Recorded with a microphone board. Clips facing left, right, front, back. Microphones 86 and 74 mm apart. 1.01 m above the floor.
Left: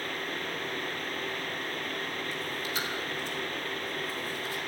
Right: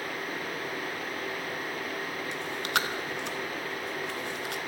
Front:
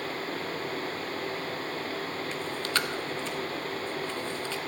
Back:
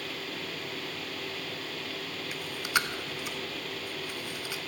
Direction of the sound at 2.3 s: 105° right.